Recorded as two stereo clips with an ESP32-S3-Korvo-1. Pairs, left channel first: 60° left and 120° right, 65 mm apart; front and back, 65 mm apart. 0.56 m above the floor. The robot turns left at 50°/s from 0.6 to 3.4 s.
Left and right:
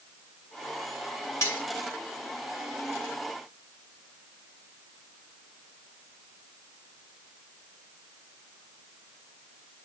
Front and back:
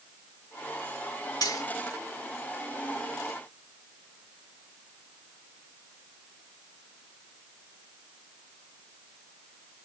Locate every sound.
1.4 s cutlery clinking: 10° left, 2.5 m; by 1.6 s straight ahead, 2.5 m